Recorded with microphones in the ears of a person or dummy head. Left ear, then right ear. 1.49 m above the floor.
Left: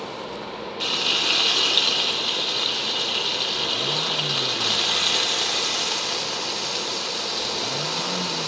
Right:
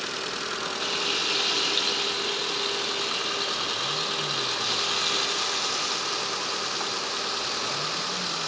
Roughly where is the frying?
Centre.